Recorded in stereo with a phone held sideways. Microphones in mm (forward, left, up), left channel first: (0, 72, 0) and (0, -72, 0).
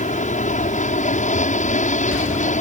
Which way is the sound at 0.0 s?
55° left (ahead or behind).